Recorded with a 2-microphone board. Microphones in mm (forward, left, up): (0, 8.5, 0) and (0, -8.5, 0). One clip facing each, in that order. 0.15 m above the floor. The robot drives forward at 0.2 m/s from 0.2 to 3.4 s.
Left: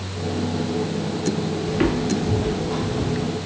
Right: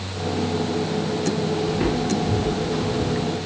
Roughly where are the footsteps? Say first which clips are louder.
Left 1 dB; left.